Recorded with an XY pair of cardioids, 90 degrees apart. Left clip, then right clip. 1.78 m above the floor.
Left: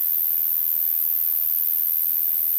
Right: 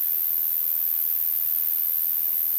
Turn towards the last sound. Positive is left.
turn(degrees=25)